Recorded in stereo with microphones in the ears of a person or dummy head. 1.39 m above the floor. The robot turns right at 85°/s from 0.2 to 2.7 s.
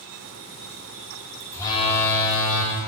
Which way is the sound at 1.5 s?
5° left.